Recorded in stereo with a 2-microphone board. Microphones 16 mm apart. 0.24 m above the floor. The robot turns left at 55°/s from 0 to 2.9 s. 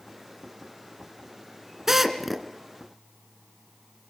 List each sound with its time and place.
1.9 s a drill: 20° right (ahead or behind), 2.5 m; by 2.5 s 10° left (ahead or behind), 2.5 m